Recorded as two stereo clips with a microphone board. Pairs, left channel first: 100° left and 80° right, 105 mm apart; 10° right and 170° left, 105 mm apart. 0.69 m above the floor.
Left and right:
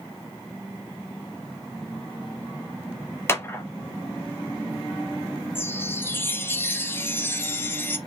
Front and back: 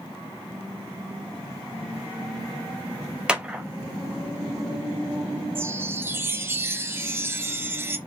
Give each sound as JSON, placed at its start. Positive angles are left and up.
{"t": 3.3, "sound": "a clap", "azimuth_deg": 100, "distance_m": 0.9}
{"t": 5.5, "sound": "a chime", "azimuth_deg": 145, "distance_m": 0.6}